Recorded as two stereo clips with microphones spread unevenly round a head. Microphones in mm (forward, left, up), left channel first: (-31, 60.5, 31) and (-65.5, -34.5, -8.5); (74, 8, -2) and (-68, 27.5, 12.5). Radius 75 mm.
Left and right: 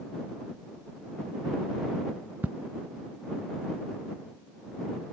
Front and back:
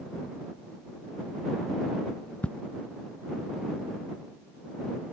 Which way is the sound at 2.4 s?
80° right.